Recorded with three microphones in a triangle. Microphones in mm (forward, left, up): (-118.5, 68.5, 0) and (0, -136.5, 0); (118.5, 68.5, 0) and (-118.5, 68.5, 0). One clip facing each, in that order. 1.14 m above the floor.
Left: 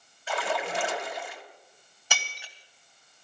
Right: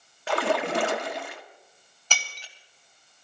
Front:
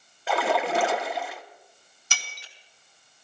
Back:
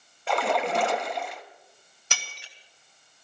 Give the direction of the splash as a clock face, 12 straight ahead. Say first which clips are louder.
Right 6 dB, front 1 dB; 3 o'clock.